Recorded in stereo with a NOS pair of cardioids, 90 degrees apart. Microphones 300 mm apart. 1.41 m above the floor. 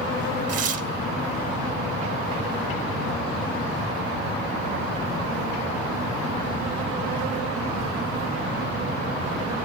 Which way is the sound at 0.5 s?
55° right.